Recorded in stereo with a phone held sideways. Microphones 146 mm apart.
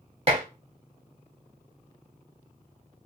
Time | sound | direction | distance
0.3 | dishes clattering | 40° right (ahead or behind) | 1.0 m